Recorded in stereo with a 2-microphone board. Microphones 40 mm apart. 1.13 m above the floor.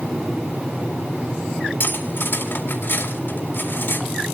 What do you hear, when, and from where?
1.8 s cutlery clinking: 65° left (ahead or behind), 2 m